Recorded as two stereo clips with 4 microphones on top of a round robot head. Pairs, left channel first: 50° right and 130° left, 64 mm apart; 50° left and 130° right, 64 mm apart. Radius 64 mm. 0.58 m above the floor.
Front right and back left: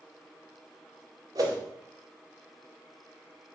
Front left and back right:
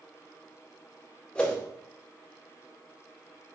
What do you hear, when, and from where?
1.4 s a whoosh: 120° left, 2 m